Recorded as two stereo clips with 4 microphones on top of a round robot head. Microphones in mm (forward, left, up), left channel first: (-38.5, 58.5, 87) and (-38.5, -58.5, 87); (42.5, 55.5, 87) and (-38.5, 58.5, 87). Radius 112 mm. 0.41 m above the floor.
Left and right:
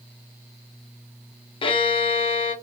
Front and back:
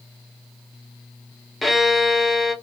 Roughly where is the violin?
Left.